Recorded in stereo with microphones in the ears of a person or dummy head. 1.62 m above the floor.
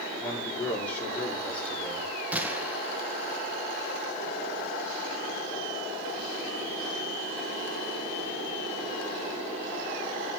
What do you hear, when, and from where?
0.2 s a man speaking: 5° left (ahead or behind), 5 m
2.3 s a gunshot: 15° right (ahead or behind), 1.5 m